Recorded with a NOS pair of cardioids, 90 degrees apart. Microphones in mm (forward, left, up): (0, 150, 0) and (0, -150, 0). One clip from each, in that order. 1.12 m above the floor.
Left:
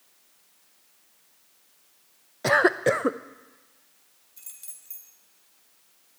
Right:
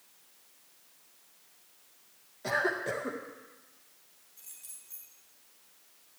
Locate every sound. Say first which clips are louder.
2.4 s a cough: left 10 dB; 65° left, 0.6 m
4.4 s keys jangling: left 4 dB; 70° left, 3.5 m